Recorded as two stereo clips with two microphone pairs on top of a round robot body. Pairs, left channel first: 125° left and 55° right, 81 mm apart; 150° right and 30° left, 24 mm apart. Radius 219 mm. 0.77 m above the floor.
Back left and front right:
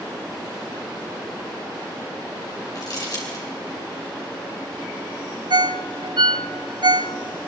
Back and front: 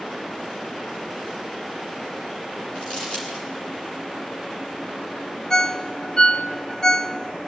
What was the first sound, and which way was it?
Crumpling, 165° left.